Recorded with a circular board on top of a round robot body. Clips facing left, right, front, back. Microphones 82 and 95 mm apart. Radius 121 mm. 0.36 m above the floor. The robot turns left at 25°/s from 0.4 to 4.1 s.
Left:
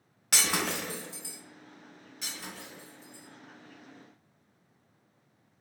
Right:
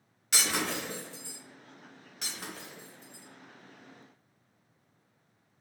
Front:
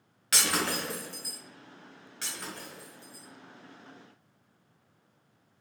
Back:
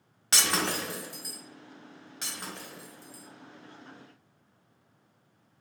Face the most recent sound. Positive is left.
turn(degrees=-160)